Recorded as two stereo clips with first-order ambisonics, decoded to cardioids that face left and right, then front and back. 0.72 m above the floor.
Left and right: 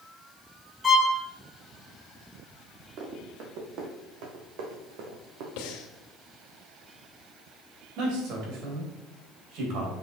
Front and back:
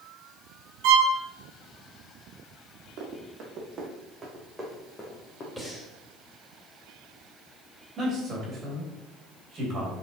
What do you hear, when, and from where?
0.8 s a violin: 175° left, 1.4 m
3.0 s running footsteps: 130° right, 3 m; by 5.5 s 65° right, 2.5 m
5.6 s breathing: 85° left, 1.2 m
8.0 s a man speaking: 115° right, 3 m